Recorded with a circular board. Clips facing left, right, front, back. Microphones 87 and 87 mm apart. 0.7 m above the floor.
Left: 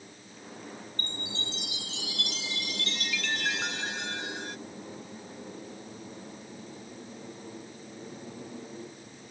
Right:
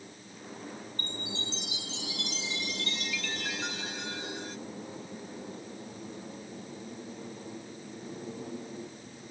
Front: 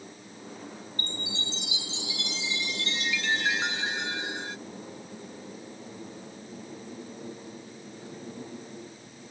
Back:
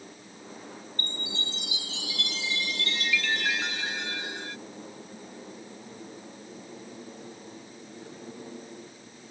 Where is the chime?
70° left.